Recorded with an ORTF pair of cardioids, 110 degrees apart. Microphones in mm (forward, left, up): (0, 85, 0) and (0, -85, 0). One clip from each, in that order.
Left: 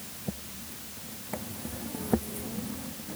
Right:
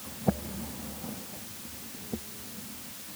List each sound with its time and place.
Only background noise.